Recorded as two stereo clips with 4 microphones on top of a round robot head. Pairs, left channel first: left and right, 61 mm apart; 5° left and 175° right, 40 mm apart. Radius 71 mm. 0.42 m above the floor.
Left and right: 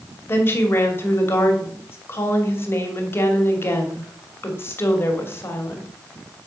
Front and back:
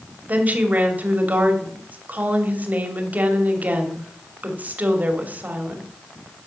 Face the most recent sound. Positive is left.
turn(degrees=140)